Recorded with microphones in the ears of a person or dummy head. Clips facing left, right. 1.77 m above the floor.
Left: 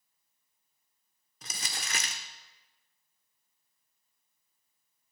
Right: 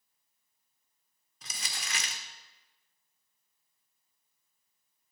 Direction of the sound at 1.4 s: 40° left (ahead or behind).